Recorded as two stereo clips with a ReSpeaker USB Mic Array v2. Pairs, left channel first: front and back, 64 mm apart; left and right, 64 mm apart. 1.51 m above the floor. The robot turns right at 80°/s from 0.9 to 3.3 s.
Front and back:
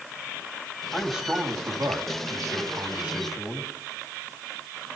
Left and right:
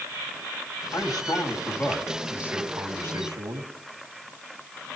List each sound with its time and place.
0.9 s a man speaking: 80° left, 3.5 m; by 3.7 s 90° right, 3.5 m